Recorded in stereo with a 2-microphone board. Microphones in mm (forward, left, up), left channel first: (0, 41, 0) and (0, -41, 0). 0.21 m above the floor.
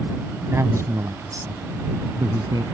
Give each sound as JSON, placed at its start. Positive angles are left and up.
{"t": 0.5, "sound": "a man speaking", "side_deg": -35}